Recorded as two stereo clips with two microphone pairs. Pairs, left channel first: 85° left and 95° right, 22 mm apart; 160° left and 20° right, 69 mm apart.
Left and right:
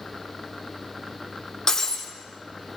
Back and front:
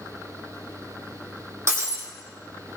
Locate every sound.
1.7 s breaking glass: 25° left, 2.5 m